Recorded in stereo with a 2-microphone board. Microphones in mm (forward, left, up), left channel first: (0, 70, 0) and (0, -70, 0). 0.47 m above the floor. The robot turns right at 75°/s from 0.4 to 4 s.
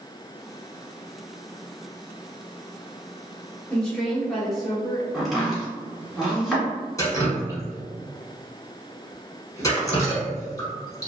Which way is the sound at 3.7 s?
10° left (ahead or behind).